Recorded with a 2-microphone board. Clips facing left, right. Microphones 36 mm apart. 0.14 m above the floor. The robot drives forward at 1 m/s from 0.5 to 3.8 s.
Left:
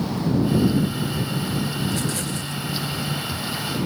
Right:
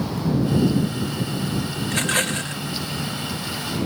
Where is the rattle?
50° right (ahead or behind).